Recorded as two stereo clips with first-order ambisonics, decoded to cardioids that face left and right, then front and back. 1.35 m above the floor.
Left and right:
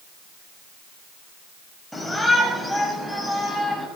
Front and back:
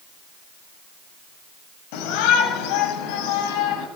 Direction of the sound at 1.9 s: Straight ahead.